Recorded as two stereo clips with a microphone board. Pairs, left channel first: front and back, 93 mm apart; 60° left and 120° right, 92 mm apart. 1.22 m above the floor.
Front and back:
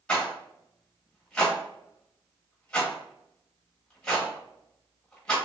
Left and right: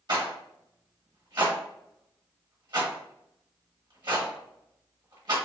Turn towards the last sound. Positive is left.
turn(degrees=-80)